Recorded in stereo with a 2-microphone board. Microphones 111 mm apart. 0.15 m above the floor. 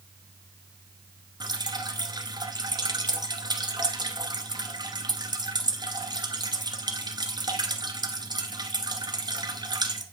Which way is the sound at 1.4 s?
40° right (ahead or behind).